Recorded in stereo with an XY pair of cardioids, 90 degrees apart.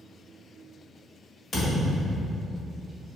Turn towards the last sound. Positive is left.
turn(degrees=60)